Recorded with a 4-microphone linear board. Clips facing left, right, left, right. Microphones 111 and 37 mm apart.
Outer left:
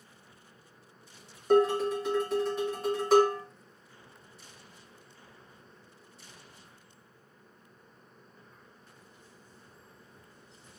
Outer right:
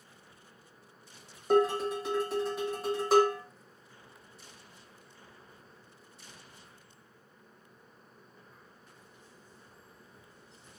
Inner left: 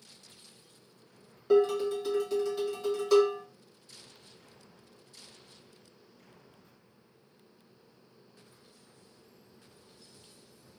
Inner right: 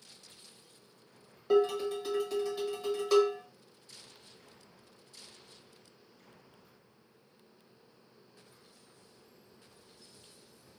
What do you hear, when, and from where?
1.5 s dishes clattering: 5° right (ahead or behind), 1.2 m